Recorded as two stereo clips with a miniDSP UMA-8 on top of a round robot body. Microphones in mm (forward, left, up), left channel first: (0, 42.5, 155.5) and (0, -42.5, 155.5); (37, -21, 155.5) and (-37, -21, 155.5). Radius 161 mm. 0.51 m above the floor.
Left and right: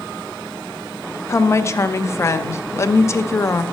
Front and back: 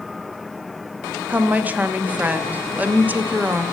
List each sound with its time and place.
1.3 s a woman speaking: 125° left, 1.0 m